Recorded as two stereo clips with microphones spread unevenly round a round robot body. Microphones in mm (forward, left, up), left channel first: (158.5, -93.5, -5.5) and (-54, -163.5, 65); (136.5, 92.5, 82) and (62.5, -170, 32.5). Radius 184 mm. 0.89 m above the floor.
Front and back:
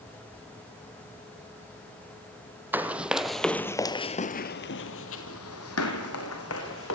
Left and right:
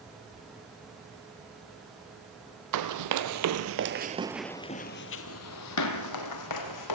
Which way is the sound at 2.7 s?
90° right.